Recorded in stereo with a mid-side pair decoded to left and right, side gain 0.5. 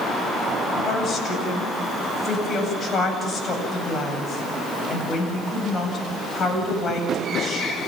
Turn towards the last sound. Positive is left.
turn(degrees=45)